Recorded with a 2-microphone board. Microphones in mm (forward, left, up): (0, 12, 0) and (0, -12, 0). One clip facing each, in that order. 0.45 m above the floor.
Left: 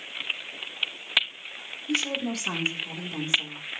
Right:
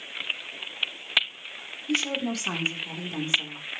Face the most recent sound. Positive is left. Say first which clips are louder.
# right 1 dB
turn(degrees=-5)  # may be behind; listen again after turning